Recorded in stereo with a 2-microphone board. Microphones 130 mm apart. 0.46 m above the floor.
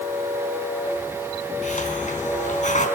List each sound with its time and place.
1.6 s a hiss: 75° left (ahead or behind), 5 m